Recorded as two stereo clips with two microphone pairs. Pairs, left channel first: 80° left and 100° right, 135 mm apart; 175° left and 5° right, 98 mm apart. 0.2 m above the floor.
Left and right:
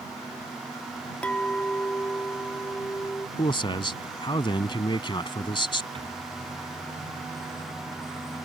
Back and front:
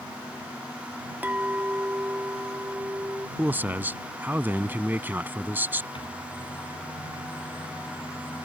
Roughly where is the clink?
Ahead left.